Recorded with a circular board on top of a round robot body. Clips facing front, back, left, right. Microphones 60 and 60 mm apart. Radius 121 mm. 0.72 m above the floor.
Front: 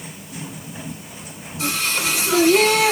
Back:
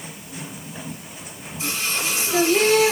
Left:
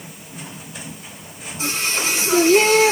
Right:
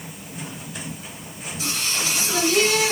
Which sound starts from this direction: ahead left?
Singing, at 1.6 s.